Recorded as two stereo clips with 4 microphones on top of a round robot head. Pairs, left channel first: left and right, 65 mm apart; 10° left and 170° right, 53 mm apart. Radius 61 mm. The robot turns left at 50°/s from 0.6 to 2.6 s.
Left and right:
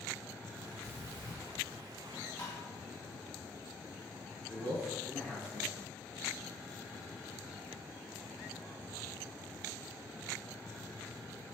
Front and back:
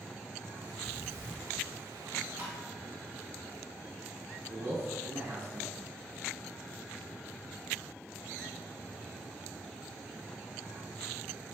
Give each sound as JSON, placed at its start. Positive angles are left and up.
{"t": 0.8, "sound": "breathing", "azimuth_deg": -140, "distance_m": 1.6}
{"t": 2.4, "sound": "tapping", "azimuth_deg": 150, "distance_m": 1.8}
{"t": 4.5, "sound": "a man speaking", "azimuth_deg": 160, "distance_m": 1.3}